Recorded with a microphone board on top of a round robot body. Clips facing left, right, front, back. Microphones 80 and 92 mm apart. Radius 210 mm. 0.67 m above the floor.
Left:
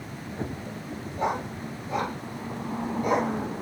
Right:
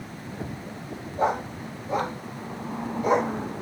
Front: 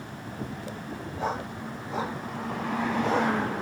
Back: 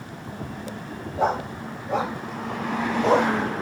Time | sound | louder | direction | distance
1.2 | a dog barking | right 3 dB, back 8 dB | 145° right | 2.5 m